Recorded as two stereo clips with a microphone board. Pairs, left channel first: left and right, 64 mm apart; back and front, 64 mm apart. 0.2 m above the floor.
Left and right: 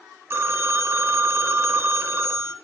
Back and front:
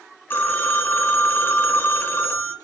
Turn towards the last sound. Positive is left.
turn(degrees=-135)